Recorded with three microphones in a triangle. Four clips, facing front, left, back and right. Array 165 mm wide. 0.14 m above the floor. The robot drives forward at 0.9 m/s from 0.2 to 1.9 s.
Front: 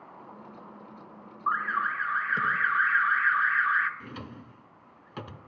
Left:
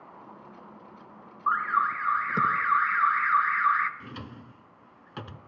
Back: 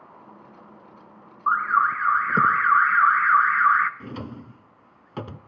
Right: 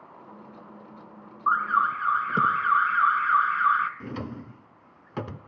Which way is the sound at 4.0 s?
125° right.